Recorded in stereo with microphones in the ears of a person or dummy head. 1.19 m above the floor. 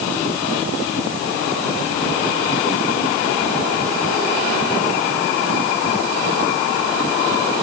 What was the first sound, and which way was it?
Only background noise.